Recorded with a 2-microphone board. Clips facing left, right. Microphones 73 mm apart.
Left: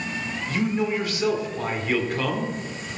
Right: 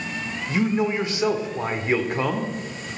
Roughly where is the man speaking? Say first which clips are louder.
Right 2 dB; right.